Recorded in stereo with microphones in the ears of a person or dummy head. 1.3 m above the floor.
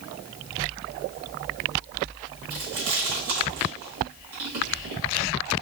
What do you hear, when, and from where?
2.5 s chewing: 45° right (ahead or behind), 1.4 m